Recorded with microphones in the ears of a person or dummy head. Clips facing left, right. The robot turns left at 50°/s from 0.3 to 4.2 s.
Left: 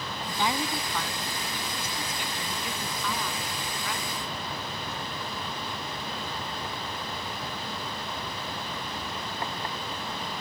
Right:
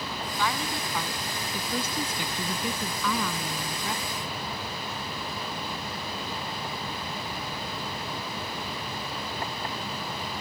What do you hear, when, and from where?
0.3 s a woman speaking: 25° left; by 4.4 s 170° right